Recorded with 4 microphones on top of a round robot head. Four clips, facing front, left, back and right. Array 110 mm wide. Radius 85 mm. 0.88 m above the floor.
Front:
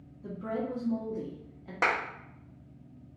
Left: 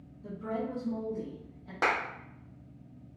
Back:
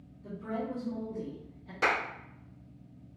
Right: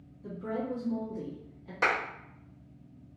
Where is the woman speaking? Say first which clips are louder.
Right 1 dB, front 2 dB; 15° left, 1.4 m.